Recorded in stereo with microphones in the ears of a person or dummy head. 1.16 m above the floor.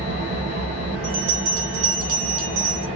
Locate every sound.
0.0 s an engine running: 40° right (ahead or behind), 0.9 m
1.0 s a bell: 70° right (ahead or behind), 1.3 m